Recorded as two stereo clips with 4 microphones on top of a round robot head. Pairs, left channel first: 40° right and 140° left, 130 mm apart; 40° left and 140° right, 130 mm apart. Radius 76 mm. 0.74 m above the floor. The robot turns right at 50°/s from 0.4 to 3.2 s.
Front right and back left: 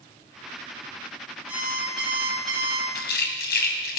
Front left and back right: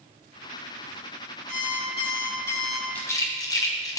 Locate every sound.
1.5 s an alarm clock: 60° left, 4 m; by 2.9 s 125° left, 4 m
3.0 s a rattle: 40° right, 1.4 m; by 4.0 s 25° right, 1.4 m